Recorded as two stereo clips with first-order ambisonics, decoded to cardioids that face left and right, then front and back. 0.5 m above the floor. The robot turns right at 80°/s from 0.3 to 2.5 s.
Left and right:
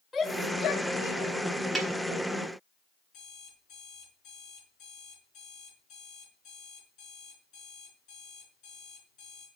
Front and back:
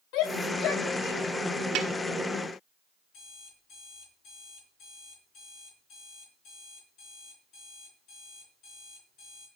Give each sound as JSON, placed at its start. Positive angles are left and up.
{"t": 0.1, "sound": "a shout", "azimuth_deg": 5, "distance_m": 1.8}
{"t": 1.8, "sound": "a snare drum", "azimuth_deg": 180, "distance_m": 1.6}
{"t": 3.1, "sound": "an alarm clock", "azimuth_deg": 50, "distance_m": 5.0}